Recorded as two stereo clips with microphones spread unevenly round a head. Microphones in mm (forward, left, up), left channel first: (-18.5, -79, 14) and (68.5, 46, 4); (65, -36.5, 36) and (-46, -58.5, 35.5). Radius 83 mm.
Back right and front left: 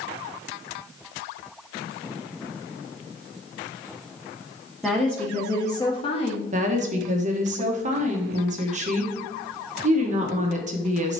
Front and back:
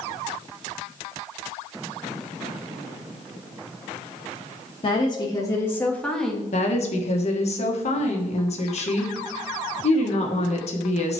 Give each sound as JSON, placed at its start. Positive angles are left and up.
{"t": 4.8, "sound": "a woman speaking", "azimuth_deg": -35, "distance_m": 1.3}
{"t": 6.5, "sound": "a woman speaking", "azimuth_deg": 25, "distance_m": 1.4}